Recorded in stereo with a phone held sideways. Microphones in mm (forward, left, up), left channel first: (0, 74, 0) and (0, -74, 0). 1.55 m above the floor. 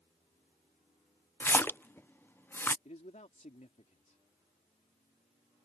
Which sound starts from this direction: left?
A man speaking, at 2.9 s.